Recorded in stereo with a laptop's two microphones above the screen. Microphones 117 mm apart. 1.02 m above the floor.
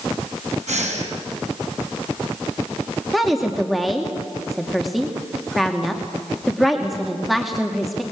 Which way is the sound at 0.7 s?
80° right.